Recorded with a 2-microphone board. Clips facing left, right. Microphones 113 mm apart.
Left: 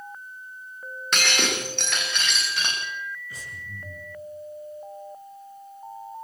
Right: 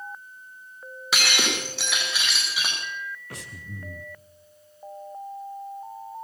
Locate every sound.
1.1 s breaking glass: 5° right (ahead or behind), 7.5 m
3.3 s breathing: 75° right (ahead or behind), 1.7 m